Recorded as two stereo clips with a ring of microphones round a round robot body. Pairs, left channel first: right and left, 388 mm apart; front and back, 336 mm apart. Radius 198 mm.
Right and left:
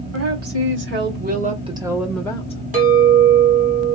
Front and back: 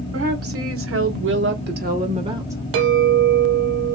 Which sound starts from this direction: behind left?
A woman speaking, at 0.1 s.